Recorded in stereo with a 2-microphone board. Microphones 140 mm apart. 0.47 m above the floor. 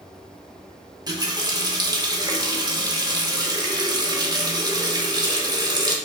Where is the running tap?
30° right (ahead or behind), 0.7 m.